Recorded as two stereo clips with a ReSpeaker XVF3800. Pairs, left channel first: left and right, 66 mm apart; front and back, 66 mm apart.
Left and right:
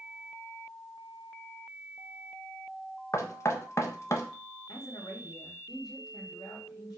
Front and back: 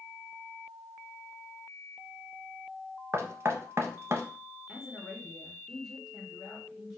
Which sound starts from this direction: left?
A woman speaking, at 4.7 s.